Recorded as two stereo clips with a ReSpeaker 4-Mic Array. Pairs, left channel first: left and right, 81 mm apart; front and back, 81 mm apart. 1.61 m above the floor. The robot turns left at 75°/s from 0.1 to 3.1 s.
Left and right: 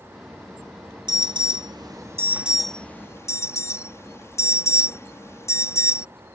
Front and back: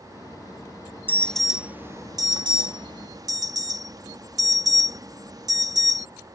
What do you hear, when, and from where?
1.1 s an alarm: 65° right; by 6.0 s 145° left